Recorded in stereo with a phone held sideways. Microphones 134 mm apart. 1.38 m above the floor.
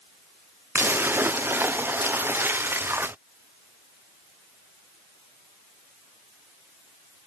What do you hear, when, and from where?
0.8 s a splash: 15° right (ahead or behind)